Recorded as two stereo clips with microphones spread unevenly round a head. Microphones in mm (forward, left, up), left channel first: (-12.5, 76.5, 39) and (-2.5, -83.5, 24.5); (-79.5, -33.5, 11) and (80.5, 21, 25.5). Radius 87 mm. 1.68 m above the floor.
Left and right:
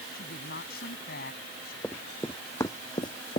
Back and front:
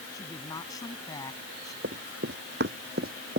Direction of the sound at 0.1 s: 125° left.